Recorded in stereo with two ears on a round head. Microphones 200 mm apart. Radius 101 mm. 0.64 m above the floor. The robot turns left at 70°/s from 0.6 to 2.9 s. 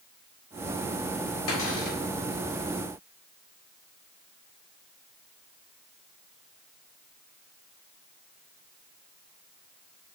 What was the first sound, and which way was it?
A cupboard door, 75° left.